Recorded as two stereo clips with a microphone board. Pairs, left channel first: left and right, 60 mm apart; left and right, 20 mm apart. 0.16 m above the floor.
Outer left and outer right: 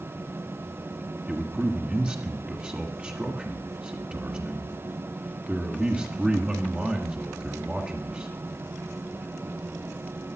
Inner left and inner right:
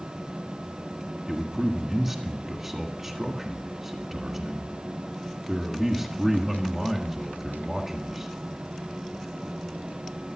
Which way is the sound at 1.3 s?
20° right (ahead or behind).